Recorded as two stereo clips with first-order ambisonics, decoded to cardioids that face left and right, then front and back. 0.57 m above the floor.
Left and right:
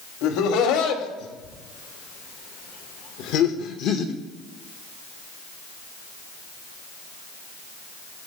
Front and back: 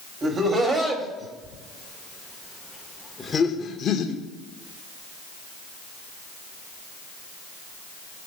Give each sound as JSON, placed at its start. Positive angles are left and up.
{"t": 0.2, "sound": "laughter", "azimuth_deg": 115, "distance_m": 2.5}